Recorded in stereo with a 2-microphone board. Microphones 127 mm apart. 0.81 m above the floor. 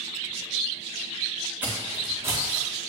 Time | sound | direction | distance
1.6 | footsteps | 10° right (ahead or behind) | 2.5 m